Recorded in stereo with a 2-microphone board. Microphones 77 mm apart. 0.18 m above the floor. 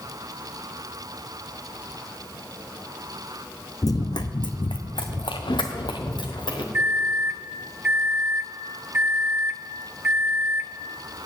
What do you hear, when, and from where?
3.8 s running footsteps: 50° left (ahead or behind), 0.7 m; by 6.6 s 70° left (ahead or behind), 1.7 m
6.7 s a microwave: 20° right (ahead or behind), 1.0 m